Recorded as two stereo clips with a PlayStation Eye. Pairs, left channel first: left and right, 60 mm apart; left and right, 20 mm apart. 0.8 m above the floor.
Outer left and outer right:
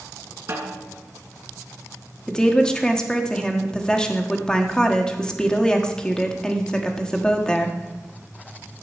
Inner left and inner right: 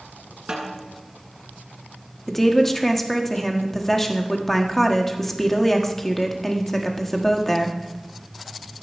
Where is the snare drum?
45° right (ahead or behind), 3 m.